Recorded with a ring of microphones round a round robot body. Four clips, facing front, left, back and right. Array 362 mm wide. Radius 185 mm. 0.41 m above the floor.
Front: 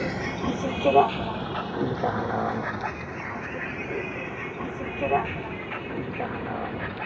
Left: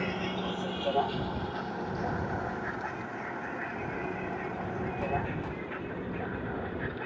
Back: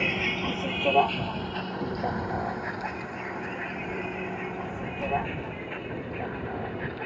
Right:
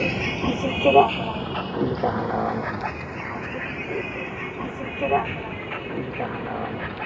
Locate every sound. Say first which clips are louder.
0.0 s a vehicle: right 8 dB, front 2 dB; 80° right; by 7.1 s 60° right